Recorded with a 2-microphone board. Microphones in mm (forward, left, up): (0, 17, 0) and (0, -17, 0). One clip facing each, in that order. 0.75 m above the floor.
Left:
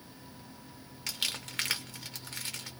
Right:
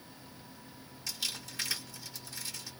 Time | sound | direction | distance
1.1 | crumpling | 55° left (ahead or behind) | 0.9 m